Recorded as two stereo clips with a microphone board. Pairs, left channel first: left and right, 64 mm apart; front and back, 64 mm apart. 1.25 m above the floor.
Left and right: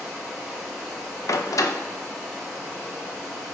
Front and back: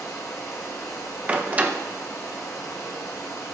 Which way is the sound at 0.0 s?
15° right.